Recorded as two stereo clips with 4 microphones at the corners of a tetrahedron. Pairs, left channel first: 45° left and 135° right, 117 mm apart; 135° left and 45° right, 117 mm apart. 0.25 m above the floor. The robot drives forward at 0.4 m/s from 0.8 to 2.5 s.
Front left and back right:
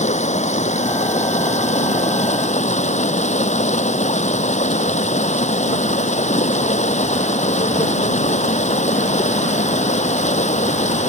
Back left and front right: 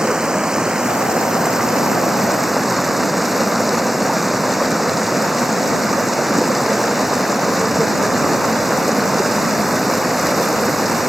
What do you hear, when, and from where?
0.0 s running water: 40° left; by 11.1 s 45° left